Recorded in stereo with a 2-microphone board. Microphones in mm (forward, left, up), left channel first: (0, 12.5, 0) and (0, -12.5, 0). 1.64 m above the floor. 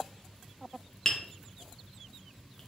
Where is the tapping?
20° left (ahead or behind), 0.7 m.